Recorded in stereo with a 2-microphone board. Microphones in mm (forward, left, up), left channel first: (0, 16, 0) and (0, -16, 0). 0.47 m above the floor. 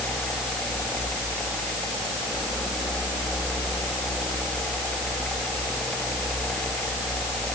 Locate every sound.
Only background noise.